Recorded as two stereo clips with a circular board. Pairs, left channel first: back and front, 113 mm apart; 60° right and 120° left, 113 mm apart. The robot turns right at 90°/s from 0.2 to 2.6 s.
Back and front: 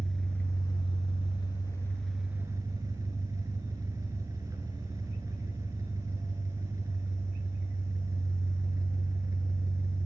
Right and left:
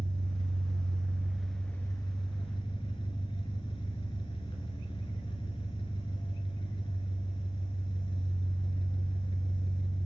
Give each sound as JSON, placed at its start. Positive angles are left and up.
{"t": 0.0, "sound": "an engine running", "azimuth_deg": 95, "distance_m": 0.7}